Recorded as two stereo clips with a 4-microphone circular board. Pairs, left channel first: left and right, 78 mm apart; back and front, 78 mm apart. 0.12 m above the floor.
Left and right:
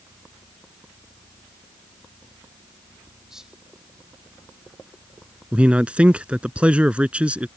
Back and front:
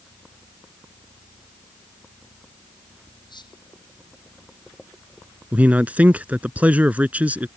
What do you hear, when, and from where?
3.3 s whispering: 170° right
5.5 s a man speaking: 40° right